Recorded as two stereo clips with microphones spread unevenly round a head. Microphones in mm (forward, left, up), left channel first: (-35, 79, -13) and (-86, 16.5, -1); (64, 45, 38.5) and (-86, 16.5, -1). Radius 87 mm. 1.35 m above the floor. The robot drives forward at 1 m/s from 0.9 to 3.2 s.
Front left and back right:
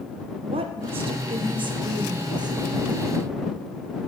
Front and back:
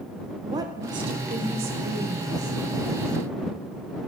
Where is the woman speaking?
105° right, 0.7 m; by 2.6 s 160° right, 2.0 m.